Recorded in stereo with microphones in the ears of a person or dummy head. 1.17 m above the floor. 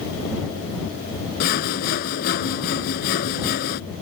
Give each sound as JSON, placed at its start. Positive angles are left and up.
{"t": 1.4, "sound": "sawing", "side_deg": 55}